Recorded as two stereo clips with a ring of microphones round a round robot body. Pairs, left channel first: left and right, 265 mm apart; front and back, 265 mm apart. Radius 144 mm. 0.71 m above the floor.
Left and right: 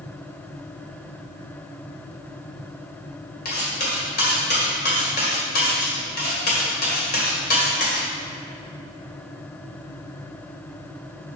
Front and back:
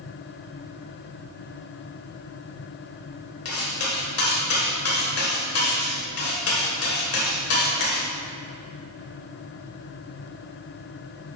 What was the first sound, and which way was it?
Cutlery clinking, 35° left.